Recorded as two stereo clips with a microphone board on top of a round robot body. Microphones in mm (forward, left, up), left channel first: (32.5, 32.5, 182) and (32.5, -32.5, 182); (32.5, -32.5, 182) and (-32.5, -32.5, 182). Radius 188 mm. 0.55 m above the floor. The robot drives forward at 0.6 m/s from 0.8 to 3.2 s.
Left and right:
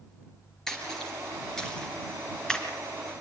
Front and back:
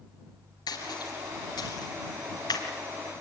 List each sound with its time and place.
0.7 s a splash: 5° left, 3.5 m; by 2.7 s 10° left, 2.5 m